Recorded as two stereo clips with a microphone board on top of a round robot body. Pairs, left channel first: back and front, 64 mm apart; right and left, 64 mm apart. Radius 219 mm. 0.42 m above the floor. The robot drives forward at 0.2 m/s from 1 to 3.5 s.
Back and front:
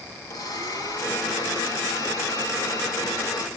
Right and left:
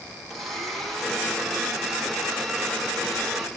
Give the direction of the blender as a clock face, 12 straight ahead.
6 o'clock.